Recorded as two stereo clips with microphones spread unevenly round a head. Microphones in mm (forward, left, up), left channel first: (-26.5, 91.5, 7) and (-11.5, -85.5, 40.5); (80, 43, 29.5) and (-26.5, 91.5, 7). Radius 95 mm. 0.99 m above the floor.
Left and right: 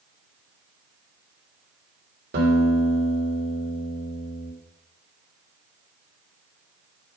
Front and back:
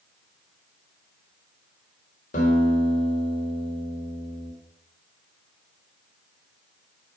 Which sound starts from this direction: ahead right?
A guitar, at 2.3 s.